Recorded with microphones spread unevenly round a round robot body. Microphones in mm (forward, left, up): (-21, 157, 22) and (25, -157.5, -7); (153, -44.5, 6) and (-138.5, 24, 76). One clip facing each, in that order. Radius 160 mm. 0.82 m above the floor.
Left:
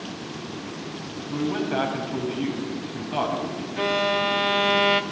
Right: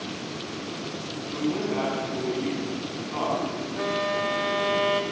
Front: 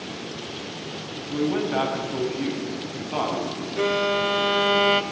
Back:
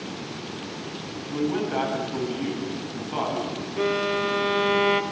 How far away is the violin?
About 1.3 m.